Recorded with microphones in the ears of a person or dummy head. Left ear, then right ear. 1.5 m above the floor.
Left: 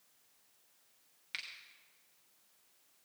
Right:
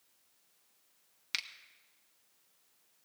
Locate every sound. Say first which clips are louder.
1.3 s a finger snap: right 6 dB; 40° right (ahead or behind), 1.0 m